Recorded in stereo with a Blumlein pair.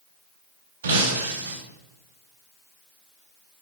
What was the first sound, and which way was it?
Breaking glass, 60° right.